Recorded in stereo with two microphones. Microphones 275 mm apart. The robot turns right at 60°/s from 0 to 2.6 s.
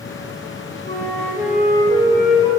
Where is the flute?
140° left, 4 m; by 2.5 s 120° right, 4 m.